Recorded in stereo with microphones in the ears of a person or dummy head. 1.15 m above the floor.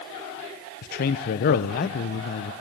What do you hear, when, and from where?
0.8 s a man speaking: 50° left (ahead or behind), 0.7 m